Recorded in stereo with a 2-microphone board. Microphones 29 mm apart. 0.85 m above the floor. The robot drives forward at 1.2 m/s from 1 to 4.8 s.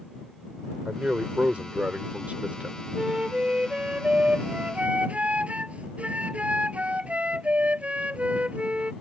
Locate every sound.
0.8 s a man speaking: 55° right (ahead or behind); by 2.8 s 70° right (ahead or behind)
3.0 s a flute: 40° right (ahead or behind); by 8.9 s 60° right (ahead or behind)